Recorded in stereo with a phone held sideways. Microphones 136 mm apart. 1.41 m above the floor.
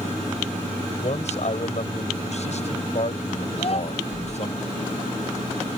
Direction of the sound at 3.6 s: 50° left (ahead or behind).